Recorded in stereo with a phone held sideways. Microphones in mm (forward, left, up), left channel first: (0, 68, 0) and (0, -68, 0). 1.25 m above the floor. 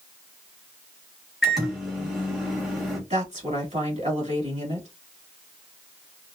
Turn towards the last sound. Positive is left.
turn(degrees=-50)  # may be behind; listen again after turning